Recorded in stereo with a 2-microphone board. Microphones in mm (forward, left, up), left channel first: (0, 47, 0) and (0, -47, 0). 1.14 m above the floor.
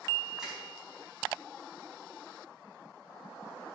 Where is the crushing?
5° right (ahead or behind), 4.5 m.